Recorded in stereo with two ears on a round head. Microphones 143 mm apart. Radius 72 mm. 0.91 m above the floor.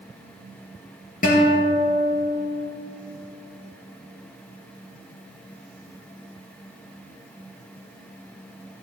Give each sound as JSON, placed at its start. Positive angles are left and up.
{"t": 1.2, "sound": "a guitar", "side_deg": 50, "distance_m": 4.0}